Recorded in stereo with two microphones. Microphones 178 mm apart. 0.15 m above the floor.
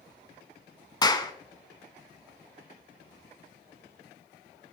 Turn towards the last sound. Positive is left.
turn(degrees=20)  # may be behind; listen again after turning